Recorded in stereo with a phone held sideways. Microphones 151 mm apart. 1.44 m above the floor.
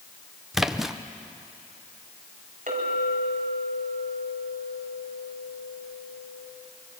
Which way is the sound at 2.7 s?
60° right (ahead or behind).